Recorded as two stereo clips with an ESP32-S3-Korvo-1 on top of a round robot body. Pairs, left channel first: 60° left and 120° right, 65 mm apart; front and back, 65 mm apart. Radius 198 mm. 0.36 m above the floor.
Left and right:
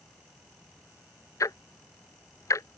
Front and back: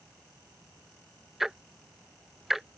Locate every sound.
1.4 s ticking: 95° left